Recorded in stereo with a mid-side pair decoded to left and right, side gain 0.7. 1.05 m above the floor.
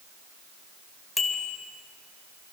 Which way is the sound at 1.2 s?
15° left.